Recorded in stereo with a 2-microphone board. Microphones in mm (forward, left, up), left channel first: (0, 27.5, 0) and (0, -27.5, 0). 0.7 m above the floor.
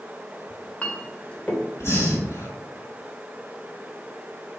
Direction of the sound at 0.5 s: 25° left (ahead or behind).